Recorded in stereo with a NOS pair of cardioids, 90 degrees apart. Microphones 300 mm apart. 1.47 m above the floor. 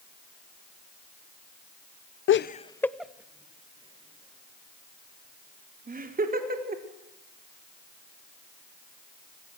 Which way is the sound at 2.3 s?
50° left.